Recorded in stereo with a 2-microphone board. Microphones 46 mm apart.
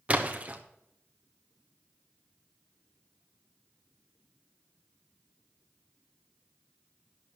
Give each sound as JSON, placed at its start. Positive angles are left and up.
{"t": 0.1, "sound": "a splash", "side_deg": -30, "distance_m": 1.0}